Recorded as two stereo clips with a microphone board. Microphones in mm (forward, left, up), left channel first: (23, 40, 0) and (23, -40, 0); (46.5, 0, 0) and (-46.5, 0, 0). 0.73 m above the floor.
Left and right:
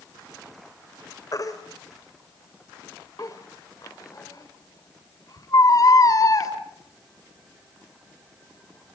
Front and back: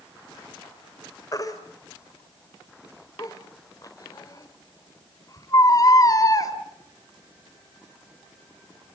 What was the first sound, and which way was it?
A baby crying, 50° left.